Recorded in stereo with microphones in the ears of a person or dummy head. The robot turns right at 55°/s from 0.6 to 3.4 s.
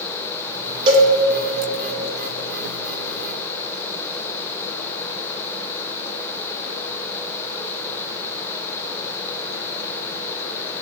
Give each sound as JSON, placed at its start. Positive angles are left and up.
{"t": 0.9, "sound": "a cowbell", "side_deg": -35, "distance_m": 1.7}